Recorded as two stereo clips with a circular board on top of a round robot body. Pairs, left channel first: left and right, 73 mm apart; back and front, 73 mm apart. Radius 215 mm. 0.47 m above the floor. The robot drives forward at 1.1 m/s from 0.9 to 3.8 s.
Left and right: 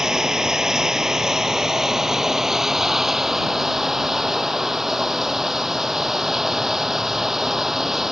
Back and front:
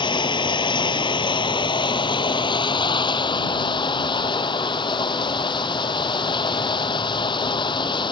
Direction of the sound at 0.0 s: 175° right.